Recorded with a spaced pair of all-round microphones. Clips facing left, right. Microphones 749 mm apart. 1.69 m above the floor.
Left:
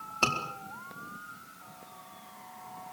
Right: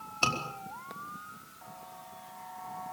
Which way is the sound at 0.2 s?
80° left.